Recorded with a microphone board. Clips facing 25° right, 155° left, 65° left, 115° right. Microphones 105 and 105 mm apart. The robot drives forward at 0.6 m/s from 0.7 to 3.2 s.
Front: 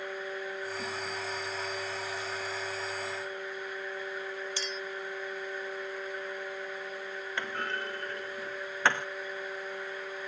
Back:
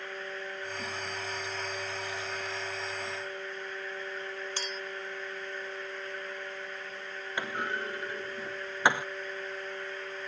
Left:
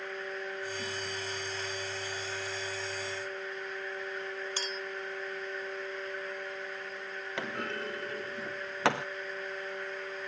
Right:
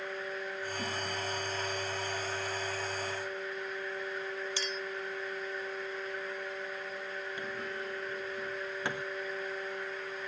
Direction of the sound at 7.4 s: 80° left.